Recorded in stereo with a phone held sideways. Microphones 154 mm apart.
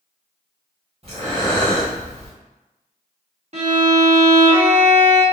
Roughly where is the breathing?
Right.